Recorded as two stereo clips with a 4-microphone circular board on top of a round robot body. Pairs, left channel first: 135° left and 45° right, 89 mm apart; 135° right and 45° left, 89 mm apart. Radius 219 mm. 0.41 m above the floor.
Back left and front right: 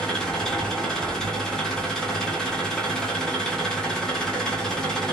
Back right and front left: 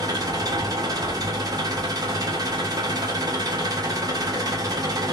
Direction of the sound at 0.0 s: 55° left.